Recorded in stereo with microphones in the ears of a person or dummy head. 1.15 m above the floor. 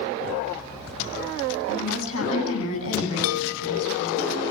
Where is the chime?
80° left, 0.5 m.